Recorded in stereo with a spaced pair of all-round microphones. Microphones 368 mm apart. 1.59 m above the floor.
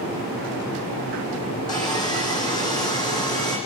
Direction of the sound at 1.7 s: 10° left (ahead or behind).